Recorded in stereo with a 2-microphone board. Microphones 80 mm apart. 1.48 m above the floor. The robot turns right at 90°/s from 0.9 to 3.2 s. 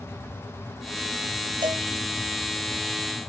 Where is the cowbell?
70° right (ahead or behind); by 1.9 s 80° right.